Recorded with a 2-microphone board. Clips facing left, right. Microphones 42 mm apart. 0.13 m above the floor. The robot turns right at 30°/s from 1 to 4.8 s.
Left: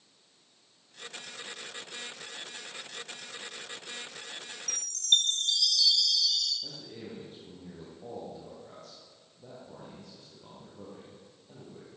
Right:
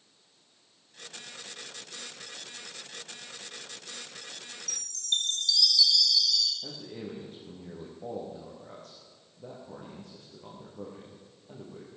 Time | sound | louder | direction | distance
4.7 | a chime | left 5 dB | 45° left (ahead or behind) | 2.0 m
6.6 | a man speaking | right 3 dB | 20° right (ahead or behind) | 3.5 m